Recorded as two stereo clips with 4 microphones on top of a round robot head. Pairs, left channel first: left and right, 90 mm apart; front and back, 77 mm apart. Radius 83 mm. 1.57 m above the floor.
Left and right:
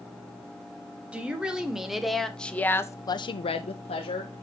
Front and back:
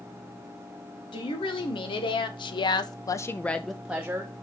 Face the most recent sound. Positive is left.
turn(degrees=115)